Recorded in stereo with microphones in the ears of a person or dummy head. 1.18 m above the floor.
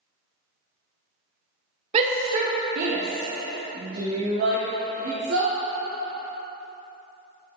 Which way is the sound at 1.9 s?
35° right (ahead or behind).